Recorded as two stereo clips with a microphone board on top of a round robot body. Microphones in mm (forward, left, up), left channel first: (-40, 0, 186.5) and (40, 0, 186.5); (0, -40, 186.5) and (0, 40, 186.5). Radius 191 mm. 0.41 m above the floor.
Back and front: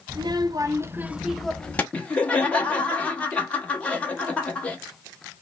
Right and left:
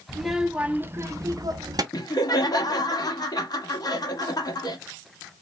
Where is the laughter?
110° right, 1.4 m.